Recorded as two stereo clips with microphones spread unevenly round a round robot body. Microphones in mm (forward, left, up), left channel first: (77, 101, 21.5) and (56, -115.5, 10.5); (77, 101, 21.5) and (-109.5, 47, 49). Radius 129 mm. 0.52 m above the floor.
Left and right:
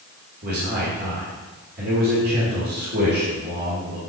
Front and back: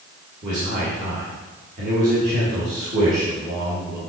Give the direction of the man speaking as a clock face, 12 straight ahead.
4 o'clock.